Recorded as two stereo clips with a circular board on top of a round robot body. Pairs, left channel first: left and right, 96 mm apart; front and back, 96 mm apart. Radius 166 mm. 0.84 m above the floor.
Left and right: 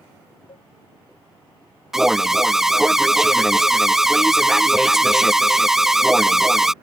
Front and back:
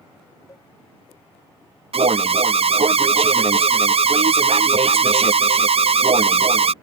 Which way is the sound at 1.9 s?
175° right.